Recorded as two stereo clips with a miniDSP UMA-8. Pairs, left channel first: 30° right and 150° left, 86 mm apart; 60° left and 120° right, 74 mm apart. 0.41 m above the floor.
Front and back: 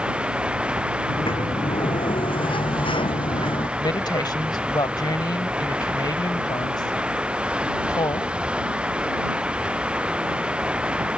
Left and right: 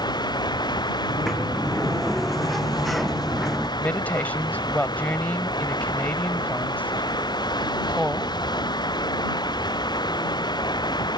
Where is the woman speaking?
5° right.